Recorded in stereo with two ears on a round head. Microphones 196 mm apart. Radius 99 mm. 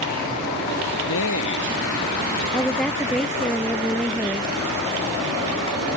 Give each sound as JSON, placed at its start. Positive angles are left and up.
{"t": 1.0, "sound": "a man speaking", "side_deg": 65}
{"t": 2.5, "sound": "a woman speaking", "side_deg": 5}